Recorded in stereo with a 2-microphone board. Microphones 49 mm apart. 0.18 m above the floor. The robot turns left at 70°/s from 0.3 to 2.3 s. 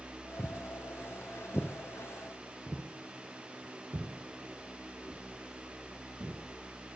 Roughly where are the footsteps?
Left.